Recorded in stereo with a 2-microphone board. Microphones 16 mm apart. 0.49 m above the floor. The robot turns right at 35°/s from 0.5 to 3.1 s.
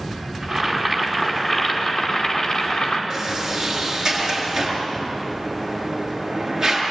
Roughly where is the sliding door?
Right.